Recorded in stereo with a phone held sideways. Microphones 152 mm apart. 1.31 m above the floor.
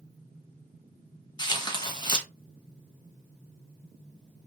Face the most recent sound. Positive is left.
turn(degrees=30)  # may be behind; listen again after turning